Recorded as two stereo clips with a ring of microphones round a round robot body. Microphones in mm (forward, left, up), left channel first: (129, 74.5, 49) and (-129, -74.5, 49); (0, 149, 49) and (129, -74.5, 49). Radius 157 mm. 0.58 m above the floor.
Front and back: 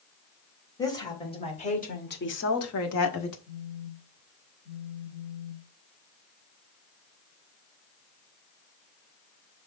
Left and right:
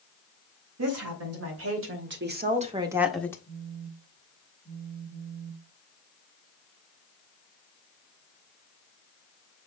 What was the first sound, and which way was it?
A woman speaking, 50° right.